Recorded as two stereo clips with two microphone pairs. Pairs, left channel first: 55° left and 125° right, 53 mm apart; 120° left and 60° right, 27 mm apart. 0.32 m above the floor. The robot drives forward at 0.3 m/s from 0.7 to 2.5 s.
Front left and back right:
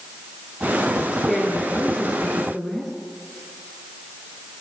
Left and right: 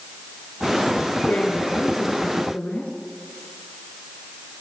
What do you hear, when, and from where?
1.3 s a woman speaking: 140° left, 4 m